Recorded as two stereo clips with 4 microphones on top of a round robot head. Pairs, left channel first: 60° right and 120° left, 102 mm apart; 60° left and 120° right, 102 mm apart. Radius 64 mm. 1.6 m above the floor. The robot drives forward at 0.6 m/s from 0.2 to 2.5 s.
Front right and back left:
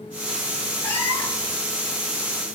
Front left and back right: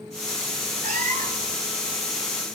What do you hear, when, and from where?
0.8 s a cat meowing: 125° right, 2.5 m; by 1.6 s 135° right, 3 m